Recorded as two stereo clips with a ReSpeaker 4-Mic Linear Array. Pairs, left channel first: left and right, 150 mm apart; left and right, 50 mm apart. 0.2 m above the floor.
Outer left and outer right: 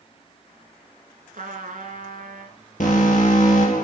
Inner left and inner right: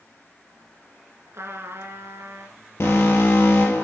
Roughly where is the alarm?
Left.